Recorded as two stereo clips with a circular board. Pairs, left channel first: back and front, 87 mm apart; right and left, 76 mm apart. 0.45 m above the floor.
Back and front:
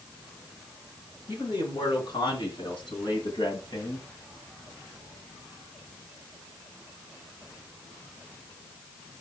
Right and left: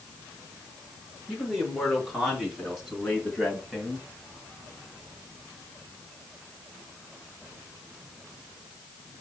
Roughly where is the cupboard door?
I don't hear a cupboard door.